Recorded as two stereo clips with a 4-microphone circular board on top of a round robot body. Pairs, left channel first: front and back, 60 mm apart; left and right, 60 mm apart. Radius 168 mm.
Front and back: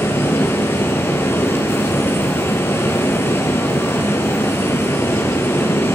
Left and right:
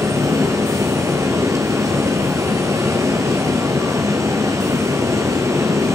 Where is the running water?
55° right, 1.5 m.